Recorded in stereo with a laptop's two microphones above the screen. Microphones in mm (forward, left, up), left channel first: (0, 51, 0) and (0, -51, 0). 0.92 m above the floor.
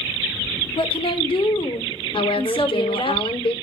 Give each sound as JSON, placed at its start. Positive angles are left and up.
{"t": 0.8, "sound": "a woman speaking", "side_deg": 60, "distance_m": 2.0}
{"t": 2.1, "sound": "a woman speaking", "side_deg": 60, "distance_m": 2.0}